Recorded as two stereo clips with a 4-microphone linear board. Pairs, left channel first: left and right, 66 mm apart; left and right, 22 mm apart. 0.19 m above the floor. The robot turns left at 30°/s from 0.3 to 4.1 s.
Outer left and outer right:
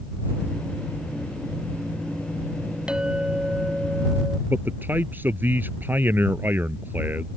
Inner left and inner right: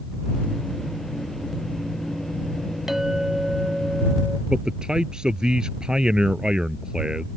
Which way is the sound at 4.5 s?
30° right (ahead or behind).